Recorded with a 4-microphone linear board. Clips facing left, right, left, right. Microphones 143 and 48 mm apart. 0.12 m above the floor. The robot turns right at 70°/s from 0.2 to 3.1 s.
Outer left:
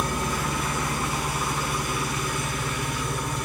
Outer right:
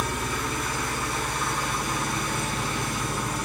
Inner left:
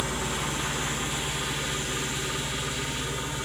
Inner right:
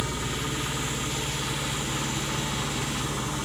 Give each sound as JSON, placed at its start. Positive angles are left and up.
{"t": 0.0, "sound": "an engine running", "azimuth_deg": 95, "distance_m": 3.0}